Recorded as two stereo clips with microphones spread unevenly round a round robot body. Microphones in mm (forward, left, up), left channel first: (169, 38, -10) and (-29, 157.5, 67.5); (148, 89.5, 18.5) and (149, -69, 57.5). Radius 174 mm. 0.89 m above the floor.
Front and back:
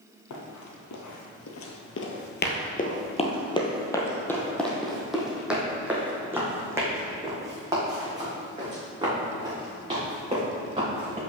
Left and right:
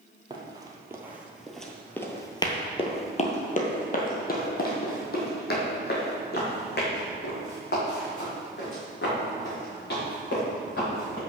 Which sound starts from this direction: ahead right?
Running footsteps, at 0.3 s.